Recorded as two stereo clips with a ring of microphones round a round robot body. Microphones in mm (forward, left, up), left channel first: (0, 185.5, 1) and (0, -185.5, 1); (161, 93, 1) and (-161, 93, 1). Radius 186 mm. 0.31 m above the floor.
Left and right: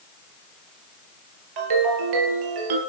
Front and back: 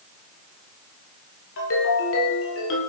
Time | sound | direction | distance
1.6 | a ringtone | 60° right | 3.5 m